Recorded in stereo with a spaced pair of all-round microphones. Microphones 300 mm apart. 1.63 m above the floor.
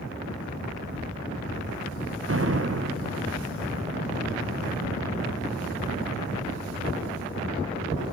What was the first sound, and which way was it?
An explosion, 50° right (ahead or behind).